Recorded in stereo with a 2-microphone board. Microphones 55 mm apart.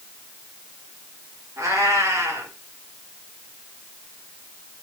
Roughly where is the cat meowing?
Right.